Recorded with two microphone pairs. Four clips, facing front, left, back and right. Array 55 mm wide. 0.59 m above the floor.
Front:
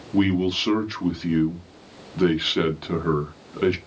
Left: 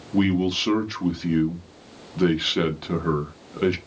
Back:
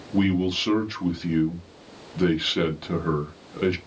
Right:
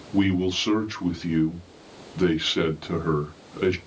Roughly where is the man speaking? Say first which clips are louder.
Left 1 dB, front 2 dB; ahead.